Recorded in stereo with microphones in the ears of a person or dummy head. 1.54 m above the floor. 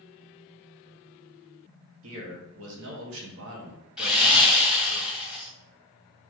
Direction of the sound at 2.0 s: 80° right.